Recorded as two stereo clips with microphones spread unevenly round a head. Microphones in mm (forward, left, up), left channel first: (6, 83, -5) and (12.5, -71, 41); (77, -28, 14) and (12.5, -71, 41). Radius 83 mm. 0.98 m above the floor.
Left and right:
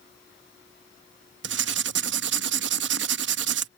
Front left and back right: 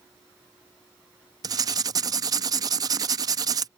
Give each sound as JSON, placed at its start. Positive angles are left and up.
{"t": 1.4, "sound": "writing", "azimuth_deg": -105}